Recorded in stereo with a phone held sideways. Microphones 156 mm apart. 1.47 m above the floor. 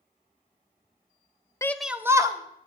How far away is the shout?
About 0.5 m.